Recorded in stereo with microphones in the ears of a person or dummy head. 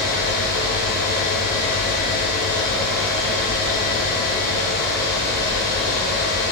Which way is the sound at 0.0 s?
55° left (ahead or behind).